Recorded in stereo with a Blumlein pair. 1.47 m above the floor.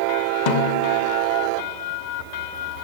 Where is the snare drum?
50° left, 1.9 m.